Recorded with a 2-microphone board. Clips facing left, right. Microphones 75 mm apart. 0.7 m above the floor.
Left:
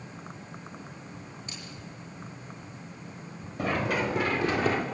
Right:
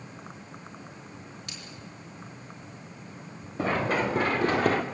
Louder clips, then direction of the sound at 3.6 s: Right 2 dB; 25° right (ahead or behind).